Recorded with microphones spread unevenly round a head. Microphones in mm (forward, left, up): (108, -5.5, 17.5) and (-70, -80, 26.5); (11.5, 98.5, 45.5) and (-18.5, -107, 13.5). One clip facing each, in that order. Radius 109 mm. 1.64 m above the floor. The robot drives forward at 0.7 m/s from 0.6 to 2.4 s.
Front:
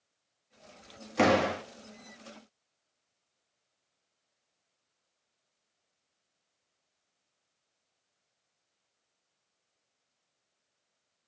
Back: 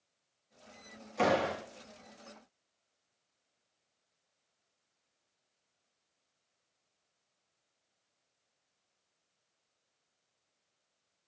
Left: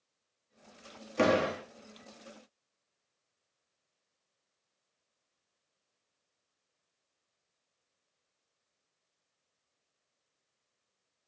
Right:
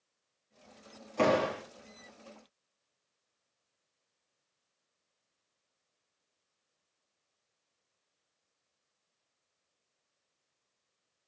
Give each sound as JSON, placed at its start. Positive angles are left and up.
{"t": 1.2, "sound": "a door slam", "azimuth_deg": 25, "distance_m": 1.7}